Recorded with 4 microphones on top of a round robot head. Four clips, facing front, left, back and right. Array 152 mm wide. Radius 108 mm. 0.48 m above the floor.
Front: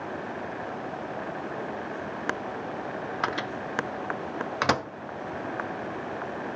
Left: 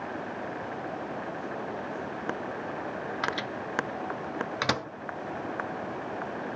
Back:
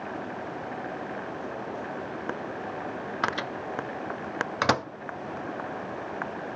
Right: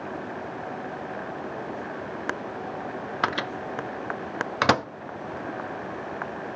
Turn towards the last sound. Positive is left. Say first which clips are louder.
# right 7 dB, back 2 dB
turn(degrees=-95)